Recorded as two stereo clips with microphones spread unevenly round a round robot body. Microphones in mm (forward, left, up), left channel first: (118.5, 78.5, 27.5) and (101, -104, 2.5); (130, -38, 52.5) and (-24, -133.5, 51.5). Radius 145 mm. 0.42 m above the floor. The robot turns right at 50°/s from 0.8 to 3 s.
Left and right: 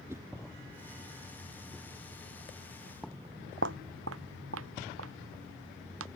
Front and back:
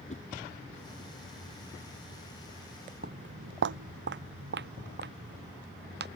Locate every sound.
0.1 s a whoosh: 20° right
3.0 s footsteps: 165° left; by 6.1 s 125° right